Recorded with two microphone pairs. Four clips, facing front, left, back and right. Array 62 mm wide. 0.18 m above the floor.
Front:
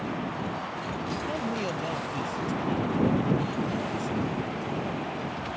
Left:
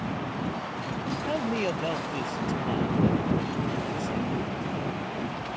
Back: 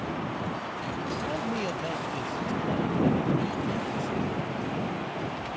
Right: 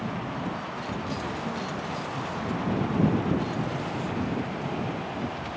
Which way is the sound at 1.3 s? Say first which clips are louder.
Left 4 dB, even; 85° left.